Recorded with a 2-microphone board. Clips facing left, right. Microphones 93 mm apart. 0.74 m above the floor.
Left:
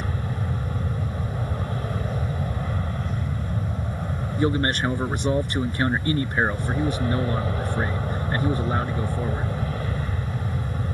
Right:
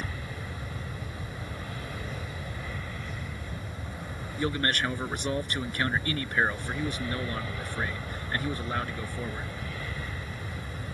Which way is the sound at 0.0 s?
40° left (ahead or behind).